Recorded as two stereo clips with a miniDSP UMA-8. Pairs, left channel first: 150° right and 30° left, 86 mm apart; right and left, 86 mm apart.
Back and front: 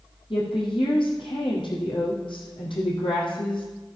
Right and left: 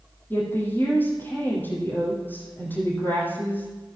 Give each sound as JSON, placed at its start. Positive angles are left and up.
{"t": 0.3, "sound": "a woman speaking", "azimuth_deg": -155, "distance_m": 4.5}